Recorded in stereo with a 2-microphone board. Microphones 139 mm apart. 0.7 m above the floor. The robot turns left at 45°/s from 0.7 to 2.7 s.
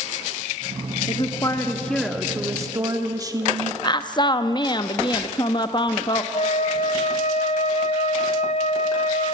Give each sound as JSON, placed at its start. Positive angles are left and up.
{"t": 1.1, "sound": "a woman speaking", "azimuth_deg": 45, "distance_m": 1.1}
{"t": 3.8, "sound": "a woman speaking", "side_deg": 30, "distance_m": 0.7}
{"t": 6.3, "sound": "a flute", "side_deg": 55, "distance_m": 0.9}